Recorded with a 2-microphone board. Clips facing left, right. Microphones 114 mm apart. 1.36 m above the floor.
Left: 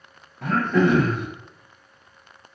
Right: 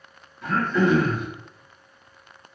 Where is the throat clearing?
80° left, 0.7 m.